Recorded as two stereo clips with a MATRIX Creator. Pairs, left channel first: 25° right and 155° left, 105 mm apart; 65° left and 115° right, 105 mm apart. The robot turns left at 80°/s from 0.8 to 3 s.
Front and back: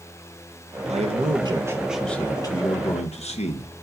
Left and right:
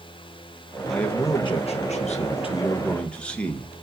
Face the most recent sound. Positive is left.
turn(degrees=-15)